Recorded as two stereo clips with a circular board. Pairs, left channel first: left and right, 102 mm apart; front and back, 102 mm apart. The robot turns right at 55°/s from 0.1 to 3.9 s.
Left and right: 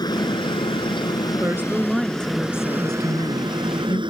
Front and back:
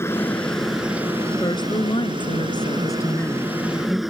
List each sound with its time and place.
0.0 s a helicopter: 60° left; by 4.1 s 90° right
1.4 s a woman speaking: 35° right; by 4.0 s 100° left